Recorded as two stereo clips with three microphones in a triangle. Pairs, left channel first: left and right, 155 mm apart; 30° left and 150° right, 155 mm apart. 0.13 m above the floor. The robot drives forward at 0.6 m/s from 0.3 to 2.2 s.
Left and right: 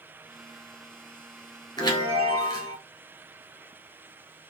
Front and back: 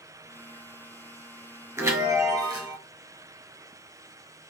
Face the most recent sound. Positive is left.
turn(degrees=150)